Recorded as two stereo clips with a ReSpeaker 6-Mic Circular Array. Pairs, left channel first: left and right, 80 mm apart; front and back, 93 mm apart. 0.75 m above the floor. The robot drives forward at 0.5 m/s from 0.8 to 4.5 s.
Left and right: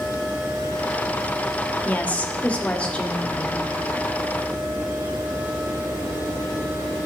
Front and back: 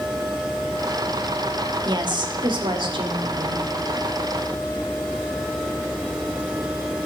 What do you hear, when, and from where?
1.9 s a woman speaking: 155° left, 1.4 m; by 3.7 s 165° left, 2 m